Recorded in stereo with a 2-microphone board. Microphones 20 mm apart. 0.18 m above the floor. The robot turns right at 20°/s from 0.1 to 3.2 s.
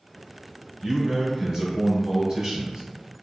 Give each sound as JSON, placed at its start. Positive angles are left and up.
{"t": 0.8, "sound": "a man speaking", "side_deg": -5, "distance_m": 1.1}